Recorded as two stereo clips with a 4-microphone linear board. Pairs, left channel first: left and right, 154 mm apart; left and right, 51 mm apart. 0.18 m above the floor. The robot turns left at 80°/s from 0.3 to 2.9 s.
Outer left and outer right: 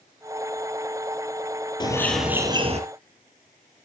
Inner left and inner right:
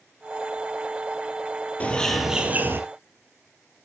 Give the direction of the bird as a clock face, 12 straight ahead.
11 o'clock.